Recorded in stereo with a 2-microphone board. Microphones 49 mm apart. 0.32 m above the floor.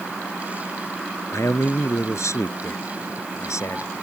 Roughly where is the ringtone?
No ringtone in this recording.